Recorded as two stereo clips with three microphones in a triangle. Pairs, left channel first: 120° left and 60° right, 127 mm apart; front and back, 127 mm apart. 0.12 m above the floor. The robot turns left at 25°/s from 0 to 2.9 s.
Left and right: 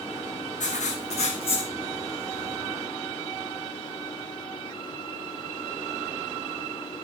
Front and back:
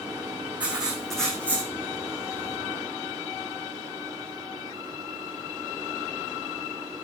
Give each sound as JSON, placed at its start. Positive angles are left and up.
{"t": 0.6, "sound": "writing", "azimuth_deg": 100, "distance_m": 2.5}